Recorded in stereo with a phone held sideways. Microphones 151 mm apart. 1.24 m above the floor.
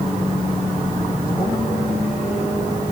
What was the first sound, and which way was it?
Only background noise.